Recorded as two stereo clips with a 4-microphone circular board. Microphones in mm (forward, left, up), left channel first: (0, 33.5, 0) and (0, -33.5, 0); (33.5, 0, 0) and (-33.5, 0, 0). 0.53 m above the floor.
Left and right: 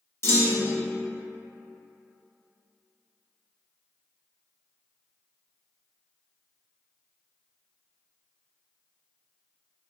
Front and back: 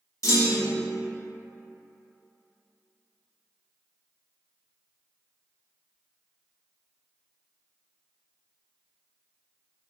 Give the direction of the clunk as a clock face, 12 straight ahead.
11 o'clock.